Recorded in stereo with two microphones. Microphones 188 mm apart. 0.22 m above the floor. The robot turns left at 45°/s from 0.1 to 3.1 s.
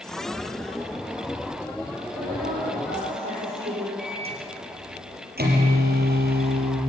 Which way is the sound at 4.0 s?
55° right (ahead or behind).